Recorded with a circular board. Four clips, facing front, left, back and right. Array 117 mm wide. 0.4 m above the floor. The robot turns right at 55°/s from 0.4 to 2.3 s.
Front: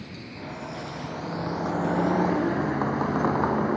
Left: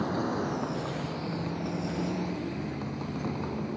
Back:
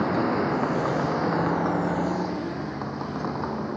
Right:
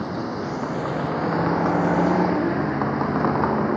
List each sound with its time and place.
0.0 s a vehicle: 175° right; by 3.8 s 70° right